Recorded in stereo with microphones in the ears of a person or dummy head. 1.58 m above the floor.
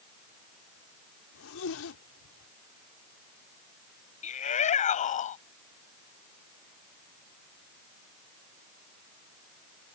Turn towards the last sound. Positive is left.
turn(degrees=40)  # may be behind; listen again after turning